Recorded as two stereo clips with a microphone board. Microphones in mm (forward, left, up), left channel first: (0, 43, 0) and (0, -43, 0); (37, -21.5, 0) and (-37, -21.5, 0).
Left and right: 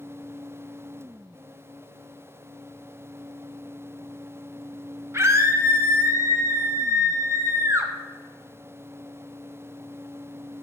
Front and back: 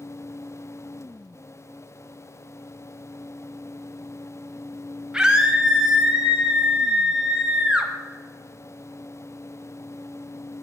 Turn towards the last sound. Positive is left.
turn(degrees=-110)